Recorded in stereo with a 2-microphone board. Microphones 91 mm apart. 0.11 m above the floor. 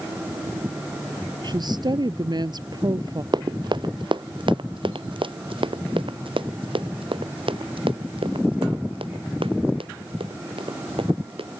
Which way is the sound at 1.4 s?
50° right (ahead or behind).